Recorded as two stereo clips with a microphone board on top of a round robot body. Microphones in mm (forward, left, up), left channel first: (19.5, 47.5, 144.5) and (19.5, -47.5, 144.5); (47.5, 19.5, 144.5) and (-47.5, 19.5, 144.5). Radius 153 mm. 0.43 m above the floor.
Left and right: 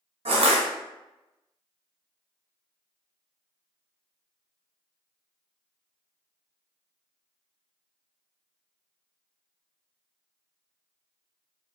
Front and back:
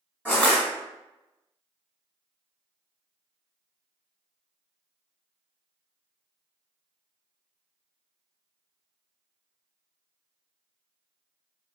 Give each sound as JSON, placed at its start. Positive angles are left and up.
{"t": 0.2, "sound": "crushing", "azimuth_deg": -80, "distance_m": 1.3}